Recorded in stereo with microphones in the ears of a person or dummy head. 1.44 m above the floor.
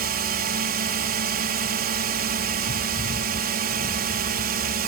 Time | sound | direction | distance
0.0 | a drone | 45° right (ahead or behind) | ?